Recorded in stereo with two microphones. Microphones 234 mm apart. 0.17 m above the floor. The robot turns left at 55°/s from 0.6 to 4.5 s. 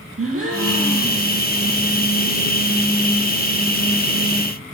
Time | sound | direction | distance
0.2 | a gasp | 75° right | 2 m